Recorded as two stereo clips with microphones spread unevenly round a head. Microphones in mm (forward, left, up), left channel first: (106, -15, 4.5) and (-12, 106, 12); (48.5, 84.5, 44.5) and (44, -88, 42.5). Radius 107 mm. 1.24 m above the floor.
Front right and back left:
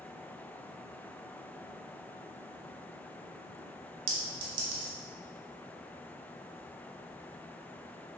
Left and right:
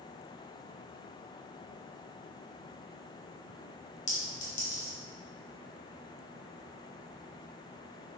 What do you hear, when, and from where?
4.1 s a clink: 145° left, 1.5 m